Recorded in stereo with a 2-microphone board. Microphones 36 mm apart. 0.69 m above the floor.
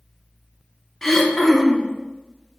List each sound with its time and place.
1.0 s throat clearing: 10° left (ahead or behind), 0.5 m